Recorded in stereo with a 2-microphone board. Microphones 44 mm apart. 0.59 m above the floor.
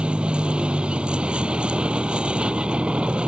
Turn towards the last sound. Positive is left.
turn(degrees=-25)  # may be behind; listen again after turning